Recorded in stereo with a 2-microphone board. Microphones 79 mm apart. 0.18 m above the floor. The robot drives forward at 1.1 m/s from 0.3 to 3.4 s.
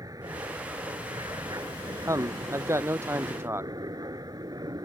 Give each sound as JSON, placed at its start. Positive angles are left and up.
{"t": 0.0, "sound": "an aircraft", "side_deg": -50}
{"t": 2.1, "sound": "a man speaking", "side_deg": -40}